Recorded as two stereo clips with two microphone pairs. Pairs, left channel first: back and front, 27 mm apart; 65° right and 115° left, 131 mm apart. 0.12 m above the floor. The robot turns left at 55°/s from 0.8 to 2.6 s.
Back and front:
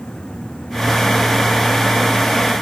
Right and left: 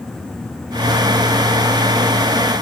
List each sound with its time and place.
Only background noise.